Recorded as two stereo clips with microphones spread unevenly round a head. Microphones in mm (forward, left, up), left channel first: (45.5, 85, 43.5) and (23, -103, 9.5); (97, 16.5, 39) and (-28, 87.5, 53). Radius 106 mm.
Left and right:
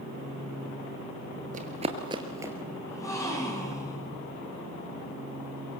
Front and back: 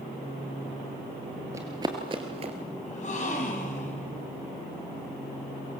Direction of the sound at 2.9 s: 10° left.